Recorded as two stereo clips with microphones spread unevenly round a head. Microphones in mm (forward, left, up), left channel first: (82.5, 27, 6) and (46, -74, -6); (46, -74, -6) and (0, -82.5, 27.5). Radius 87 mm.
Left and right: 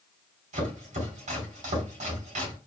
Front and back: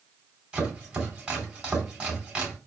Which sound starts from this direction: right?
Chopping, at 0.5 s.